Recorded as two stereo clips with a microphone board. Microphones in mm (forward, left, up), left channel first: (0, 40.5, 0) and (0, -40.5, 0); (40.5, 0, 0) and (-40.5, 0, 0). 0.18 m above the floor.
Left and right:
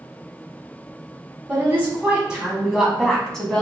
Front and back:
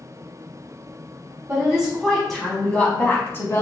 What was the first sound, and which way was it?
A woman speaking, 125° right.